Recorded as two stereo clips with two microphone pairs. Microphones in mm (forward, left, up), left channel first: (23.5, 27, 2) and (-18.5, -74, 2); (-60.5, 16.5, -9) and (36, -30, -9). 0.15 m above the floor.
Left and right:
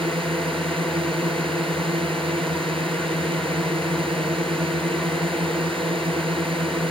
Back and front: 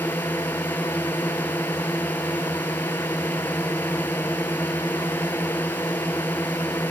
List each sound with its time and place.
0.0 s a drone: 135° right